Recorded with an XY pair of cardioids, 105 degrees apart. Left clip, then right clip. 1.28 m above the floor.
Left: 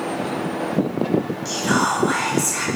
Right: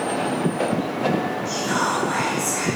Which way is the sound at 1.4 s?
65° left.